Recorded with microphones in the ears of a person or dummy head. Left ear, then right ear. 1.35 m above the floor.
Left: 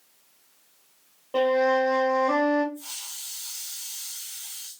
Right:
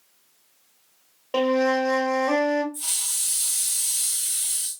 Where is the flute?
70° right (ahead or behind), 1.4 m.